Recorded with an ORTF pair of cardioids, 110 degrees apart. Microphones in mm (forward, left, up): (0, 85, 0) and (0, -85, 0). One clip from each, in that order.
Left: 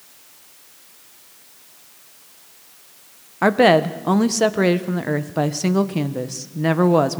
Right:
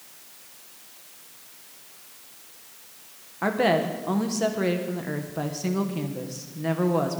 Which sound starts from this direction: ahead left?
A woman speaking, at 3.4 s.